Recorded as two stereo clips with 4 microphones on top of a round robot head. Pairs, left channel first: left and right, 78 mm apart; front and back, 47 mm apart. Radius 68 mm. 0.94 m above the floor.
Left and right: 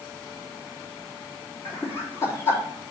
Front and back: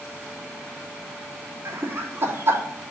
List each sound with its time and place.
1.6 s laughter: 150° left, 3 m